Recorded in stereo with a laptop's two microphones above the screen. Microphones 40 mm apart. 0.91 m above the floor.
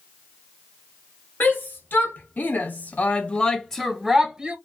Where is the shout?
50° left (ahead or behind), 1.3 m; by 4.5 s 15° right (ahead or behind), 0.9 m.